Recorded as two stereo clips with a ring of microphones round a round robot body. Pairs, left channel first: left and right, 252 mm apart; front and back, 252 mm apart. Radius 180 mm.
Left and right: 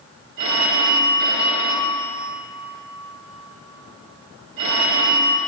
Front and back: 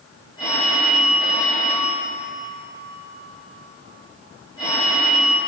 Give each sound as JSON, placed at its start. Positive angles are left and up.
{"t": 0.4, "sound": "a phone ringing", "azimuth_deg": -75, "distance_m": 1.5}